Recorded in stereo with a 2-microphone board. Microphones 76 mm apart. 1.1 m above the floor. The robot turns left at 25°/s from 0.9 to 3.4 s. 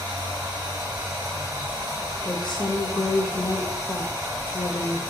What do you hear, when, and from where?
0.0 s running water: 70° right, 1.7 m; by 5.1 s 130° right, 1.7 m
2.2 s a woman speaking: 70° left (ahead or behind), 0.6 m; by 5.0 s 80° left, 0.6 m